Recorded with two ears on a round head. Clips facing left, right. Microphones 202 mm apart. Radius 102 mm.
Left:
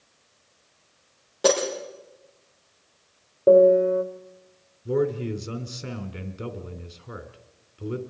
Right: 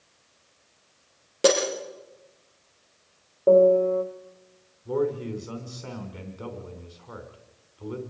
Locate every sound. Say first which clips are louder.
1.4 s breaking glass: right 1 dB; 35° right (ahead or behind), 8 m
3.5 s a piano: left 2 dB; 20° left (ahead or behind), 2 m
4.8 s a man speaking: left 2 dB; 30° left (ahead or behind), 3 m